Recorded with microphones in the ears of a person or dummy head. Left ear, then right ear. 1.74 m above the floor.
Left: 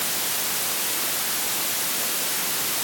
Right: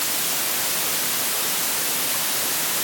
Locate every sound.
Only background noise.